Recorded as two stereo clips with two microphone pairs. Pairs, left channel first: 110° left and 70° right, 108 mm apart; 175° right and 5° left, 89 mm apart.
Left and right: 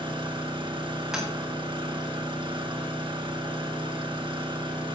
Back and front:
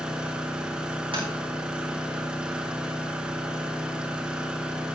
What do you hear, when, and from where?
0.0 s an engine running: 70° right, 1.7 m
1.1 s tapping: 10° left, 4 m